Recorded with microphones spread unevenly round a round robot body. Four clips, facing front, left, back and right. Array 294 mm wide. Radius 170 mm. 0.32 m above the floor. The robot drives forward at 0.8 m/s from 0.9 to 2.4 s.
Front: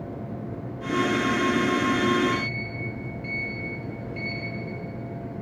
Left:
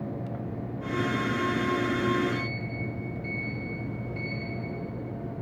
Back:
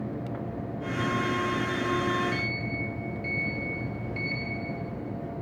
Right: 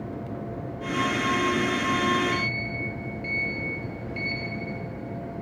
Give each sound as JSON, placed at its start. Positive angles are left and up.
{"t": 2.3, "sound": "a sliding door", "azimuth_deg": -140, "distance_m": 8.5}